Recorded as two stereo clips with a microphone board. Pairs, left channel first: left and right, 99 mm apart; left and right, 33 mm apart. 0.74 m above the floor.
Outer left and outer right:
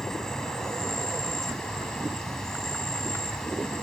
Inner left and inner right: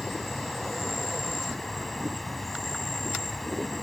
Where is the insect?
5° left (ahead or behind).